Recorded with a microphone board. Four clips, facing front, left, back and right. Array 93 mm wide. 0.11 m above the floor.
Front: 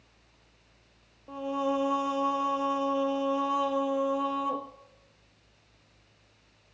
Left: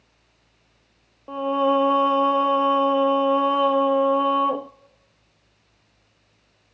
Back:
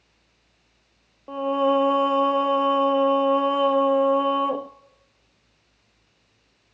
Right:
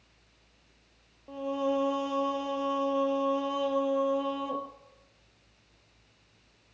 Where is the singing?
130° left, 0.5 m.